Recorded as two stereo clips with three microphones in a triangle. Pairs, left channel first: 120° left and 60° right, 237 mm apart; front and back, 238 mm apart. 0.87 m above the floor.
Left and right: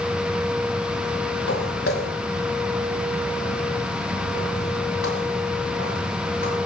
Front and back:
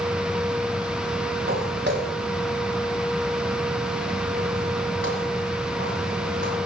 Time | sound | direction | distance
1.5 | footsteps | 140° left | 4.5 m